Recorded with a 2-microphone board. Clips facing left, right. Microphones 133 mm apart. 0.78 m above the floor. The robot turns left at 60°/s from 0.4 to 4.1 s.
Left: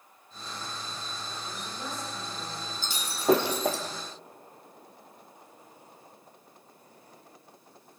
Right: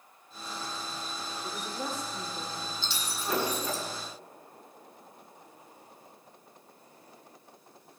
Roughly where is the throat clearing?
I don't hear throat clearing.